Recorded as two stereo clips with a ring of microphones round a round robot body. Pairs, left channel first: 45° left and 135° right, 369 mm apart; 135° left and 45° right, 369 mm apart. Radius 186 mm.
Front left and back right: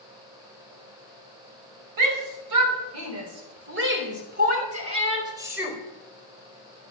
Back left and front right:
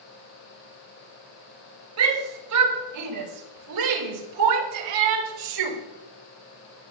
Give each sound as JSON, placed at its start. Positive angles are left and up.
{"t": 2.0, "sound": "a shout", "azimuth_deg": -95, "distance_m": 5.5}